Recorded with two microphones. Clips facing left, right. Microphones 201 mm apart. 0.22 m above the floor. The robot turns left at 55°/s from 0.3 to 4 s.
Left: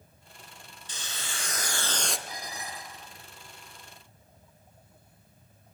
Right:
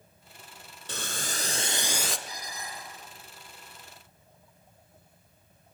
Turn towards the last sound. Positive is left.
turn(degrees=35)